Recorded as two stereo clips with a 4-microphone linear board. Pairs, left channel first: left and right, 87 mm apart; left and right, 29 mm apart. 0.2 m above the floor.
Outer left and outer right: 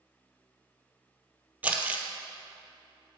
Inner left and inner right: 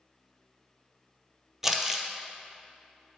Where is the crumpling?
20° right (ahead or behind), 0.7 m.